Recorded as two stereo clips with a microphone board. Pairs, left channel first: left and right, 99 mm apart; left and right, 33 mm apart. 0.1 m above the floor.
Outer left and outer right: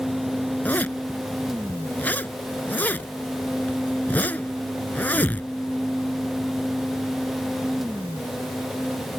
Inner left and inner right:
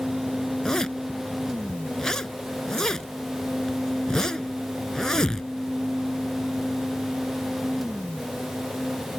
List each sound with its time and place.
0.7 s a zipper: 20° left (ahead or behind)